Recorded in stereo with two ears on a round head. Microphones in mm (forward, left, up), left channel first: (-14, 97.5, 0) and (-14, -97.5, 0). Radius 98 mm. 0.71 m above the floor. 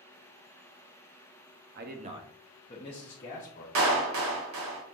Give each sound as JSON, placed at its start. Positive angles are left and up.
{"t": 1.8, "sound": "a man speaking", "side_deg": -50, "distance_m": 0.6}
{"t": 3.8, "sound": "a clap", "side_deg": -65, "distance_m": 1.0}